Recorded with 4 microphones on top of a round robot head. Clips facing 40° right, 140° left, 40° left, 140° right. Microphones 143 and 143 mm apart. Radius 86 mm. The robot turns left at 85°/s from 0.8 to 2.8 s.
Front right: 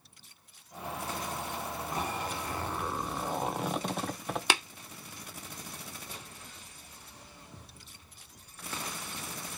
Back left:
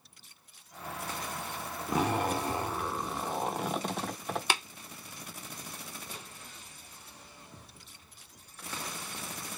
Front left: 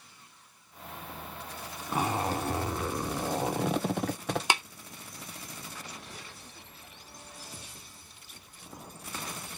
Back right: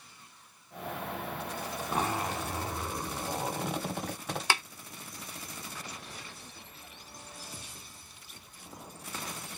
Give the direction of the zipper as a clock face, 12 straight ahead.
8 o'clock.